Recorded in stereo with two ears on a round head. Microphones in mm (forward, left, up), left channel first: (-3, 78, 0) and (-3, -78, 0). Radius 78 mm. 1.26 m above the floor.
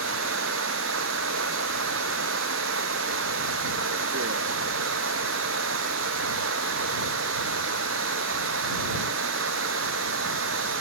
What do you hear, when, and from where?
0.0 s running water: 90° right